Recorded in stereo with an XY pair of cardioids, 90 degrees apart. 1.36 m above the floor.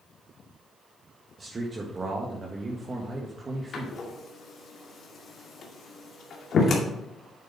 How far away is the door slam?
About 2 m.